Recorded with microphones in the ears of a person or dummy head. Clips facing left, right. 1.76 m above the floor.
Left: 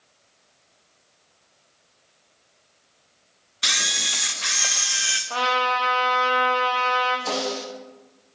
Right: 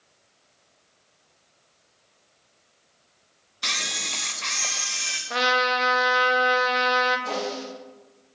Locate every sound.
3.6 s a camera shutter: 15° left (ahead or behind), 0.5 m
5.3 s a trumpet: 30° right (ahead or behind), 0.6 m
7.3 s a snare drum: 75° left (ahead or behind), 1.4 m